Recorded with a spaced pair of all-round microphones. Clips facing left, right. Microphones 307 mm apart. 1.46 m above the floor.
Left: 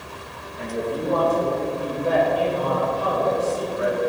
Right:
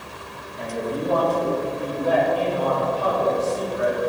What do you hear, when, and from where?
0.6 s a man speaking: 30° left (ahead or behind), 2.5 m; by 4.0 s 40° left (ahead or behind), 4 m